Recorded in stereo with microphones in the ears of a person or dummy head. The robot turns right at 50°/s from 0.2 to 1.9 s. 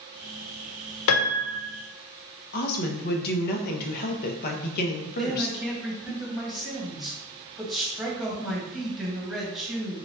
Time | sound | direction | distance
1.1 | a piano | 75° left (ahead or behind) | 0.6 m
2.5 | a woman speaking | 50° left (ahead or behind) | 0.8 m
5.1 | a man speaking | centre (ahead or behind) | 1.3 m